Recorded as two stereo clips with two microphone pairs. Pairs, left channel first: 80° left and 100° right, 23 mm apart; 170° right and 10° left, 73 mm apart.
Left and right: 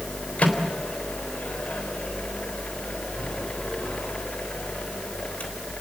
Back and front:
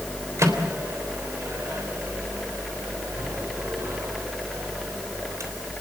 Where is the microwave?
60° left, 3.5 m.